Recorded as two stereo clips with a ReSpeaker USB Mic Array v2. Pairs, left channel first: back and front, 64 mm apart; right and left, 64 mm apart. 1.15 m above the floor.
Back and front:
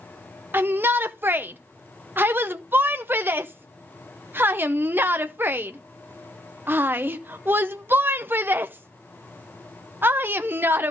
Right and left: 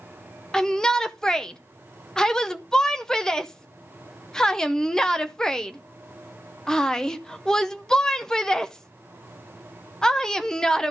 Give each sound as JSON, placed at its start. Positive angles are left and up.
{"t": 0.5, "sound": "a shout", "azimuth_deg": -15, "distance_m": 0.5}